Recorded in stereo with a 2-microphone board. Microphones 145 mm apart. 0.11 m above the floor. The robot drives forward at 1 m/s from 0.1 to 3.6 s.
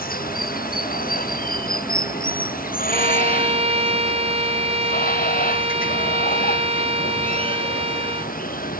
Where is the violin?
45° right (ahead or behind).